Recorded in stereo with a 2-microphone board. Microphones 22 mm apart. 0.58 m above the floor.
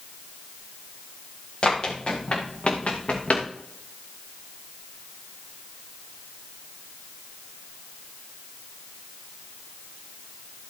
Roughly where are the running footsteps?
Left.